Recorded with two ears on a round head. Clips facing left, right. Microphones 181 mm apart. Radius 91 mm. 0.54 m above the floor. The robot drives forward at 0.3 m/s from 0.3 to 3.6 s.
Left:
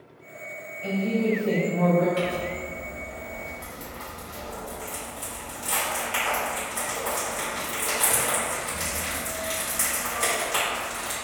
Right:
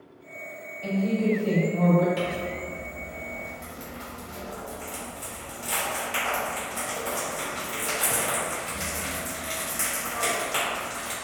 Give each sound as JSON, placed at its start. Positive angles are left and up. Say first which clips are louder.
{"t": 0.8, "sound": "a woman speaking", "louder": "even", "side_deg": -40, "distance_m": 1.9}
{"t": 2.2, "sound": "crumpling", "louder": "left 2 dB", "side_deg": -5, "distance_m": 1.3}